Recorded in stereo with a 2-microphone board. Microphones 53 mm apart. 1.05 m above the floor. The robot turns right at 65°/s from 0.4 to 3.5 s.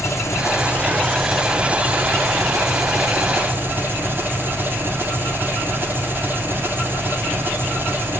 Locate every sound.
0.0 s an engine running: 120° left, 2 m; by 8.2 s 40° right, 2 m